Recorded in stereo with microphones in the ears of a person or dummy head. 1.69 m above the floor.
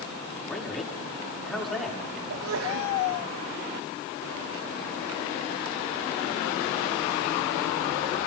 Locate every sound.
0.5 s a man speaking: 5° left (ahead or behind), 5 m
2.3 s a sneeze: 80° right, 2.5 m